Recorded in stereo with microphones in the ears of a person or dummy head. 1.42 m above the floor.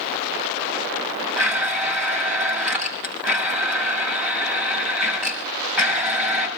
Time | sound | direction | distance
1.4 | a blender | 5° right (ahead or behind) | 6.5 m